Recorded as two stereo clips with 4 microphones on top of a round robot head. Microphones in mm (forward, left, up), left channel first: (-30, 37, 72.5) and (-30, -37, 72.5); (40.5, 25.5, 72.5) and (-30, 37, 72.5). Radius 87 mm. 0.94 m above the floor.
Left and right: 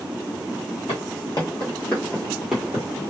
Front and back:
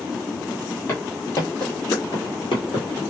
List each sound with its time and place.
0.9 s footsteps: 45° left, 1.4 m; by 2.9 s 15° right, 1.4 m